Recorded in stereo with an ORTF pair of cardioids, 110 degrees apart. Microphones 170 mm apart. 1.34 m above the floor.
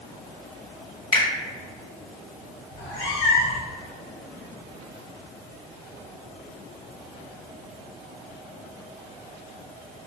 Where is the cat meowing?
60° left, 2.0 m.